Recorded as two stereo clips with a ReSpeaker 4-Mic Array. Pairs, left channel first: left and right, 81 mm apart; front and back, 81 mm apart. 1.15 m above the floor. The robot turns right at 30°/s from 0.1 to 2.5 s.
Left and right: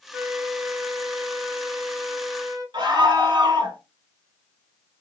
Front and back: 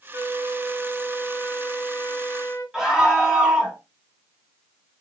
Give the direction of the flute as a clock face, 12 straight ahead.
5 o'clock.